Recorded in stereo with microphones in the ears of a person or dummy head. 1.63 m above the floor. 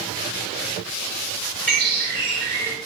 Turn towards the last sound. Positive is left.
turn(degrees=10)  # may be behind; listen again after turning